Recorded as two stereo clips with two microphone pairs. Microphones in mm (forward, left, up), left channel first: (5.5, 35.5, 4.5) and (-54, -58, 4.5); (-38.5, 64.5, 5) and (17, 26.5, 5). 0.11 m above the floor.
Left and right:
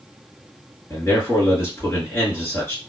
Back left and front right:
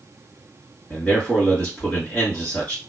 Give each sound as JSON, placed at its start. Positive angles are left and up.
{"t": 0.9, "sound": "a man speaking", "azimuth_deg": 105, "distance_m": 2.0}